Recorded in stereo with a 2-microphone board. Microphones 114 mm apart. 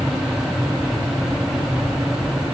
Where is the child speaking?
I don't hear a child speaking.